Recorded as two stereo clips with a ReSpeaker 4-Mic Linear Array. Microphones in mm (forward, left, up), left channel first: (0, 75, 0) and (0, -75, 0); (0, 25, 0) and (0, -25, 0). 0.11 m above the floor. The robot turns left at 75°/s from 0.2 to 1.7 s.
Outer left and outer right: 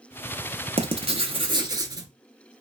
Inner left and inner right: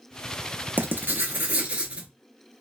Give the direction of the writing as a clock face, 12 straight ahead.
2 o'clock.